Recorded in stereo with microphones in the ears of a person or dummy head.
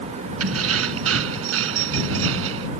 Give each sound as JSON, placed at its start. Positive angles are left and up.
{"t": 0.4, "sound": "keys jangling", "side_deg": -85}